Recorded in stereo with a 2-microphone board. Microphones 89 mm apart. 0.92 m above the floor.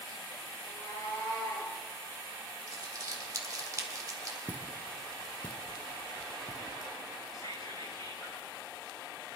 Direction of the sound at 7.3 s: 50° left (ahead or behind).